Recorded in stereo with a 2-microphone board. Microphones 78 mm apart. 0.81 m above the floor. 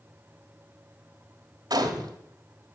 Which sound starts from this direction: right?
A gunshot, at 1.7 s.